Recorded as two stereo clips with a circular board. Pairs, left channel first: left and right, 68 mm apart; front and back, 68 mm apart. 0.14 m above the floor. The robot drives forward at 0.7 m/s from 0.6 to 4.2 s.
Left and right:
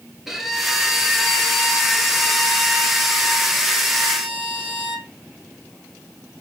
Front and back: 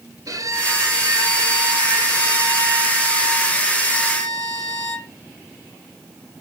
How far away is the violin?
About 2 m.